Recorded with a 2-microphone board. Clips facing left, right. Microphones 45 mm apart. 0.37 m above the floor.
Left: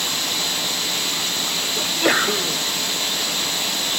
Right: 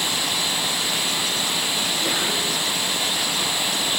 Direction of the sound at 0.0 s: 10° right (ahead or behind).